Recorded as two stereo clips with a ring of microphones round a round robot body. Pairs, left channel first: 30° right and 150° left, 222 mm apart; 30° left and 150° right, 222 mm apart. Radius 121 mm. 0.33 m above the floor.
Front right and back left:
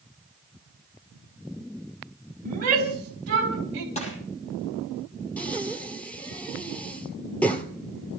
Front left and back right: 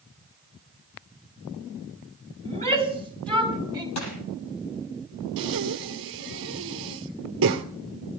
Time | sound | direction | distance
2.5 | a shout | 100° left | 3.5 m
4.0 | crushing | 30° left | 6.5 m
5.4 | breathing | 115° right | 1.6 m